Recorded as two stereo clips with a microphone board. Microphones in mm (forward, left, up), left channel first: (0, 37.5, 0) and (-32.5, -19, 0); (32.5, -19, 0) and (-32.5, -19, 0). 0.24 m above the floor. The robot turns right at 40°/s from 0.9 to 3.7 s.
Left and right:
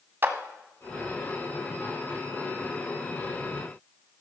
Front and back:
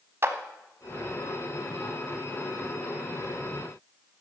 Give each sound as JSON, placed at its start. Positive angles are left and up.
{"t": 0.2, "sound": "a clap", "azimuth_deg": -155, "distance_m": 1.1}